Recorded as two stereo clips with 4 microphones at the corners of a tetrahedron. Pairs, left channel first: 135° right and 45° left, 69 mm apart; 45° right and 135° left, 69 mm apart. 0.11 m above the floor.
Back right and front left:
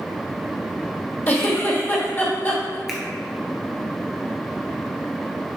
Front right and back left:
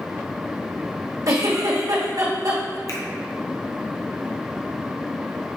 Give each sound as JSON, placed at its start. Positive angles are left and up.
{"t": 1.3, "sound": "a giggle", "azimuth_deg": 160, "distance_m": 2.5}
{"t": 2.9, "sound": "a finger snap", "azimuth_deg": -40, "distance_m": 1.4}